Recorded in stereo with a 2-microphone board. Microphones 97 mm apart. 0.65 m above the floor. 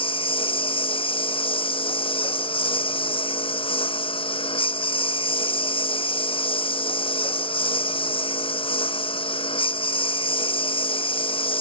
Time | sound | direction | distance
0.0 | a lawn mower | 65° left (ahead or behind) | ?